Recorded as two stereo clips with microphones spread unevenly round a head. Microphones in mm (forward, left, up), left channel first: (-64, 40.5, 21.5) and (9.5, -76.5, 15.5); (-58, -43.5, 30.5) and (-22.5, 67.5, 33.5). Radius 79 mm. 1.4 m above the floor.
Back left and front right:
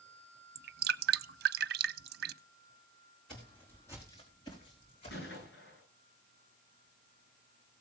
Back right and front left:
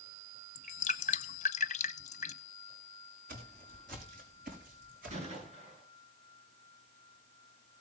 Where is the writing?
No writing in this recording.